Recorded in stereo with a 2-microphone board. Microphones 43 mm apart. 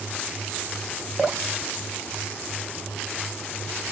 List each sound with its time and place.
1.2 s dripping: 15° left (ahead or behind), 0.5 m